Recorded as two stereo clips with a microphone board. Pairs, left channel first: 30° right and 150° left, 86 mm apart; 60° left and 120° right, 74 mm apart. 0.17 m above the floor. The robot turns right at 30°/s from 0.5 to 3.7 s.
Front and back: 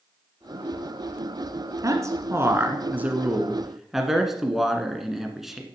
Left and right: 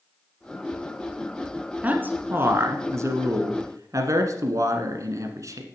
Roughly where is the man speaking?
Behind.